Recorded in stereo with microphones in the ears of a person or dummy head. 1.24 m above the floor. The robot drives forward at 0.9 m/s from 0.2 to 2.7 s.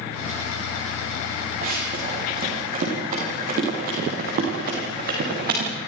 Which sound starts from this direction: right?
Running footsteps, at 1.6 s.